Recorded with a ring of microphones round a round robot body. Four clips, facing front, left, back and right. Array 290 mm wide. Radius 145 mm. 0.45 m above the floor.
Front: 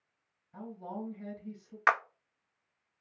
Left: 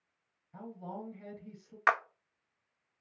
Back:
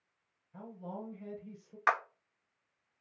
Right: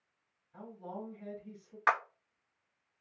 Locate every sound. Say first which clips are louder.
0.5 s a woman speaking: left 1 dB, front 3 dB; 45° left, 3.5 m
1.9 s a clap: left 1 dB, front 3 dB; 35° left, 0.5 m